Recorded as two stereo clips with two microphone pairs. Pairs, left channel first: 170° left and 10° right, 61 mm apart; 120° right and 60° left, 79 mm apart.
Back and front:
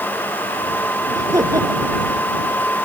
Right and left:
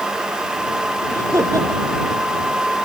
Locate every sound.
1.1 s laughter: 10° left